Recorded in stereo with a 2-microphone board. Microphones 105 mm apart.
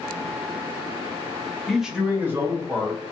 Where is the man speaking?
5° left (ahead or behind), 0.5 m; by 3.0 s 30° right (ahead or behind), 1.1 m.